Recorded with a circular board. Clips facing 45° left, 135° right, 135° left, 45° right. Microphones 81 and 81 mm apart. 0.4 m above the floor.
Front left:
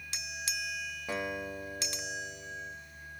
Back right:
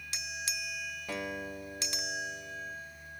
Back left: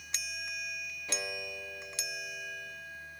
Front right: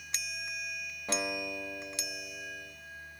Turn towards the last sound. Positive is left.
turn(degrees=-20)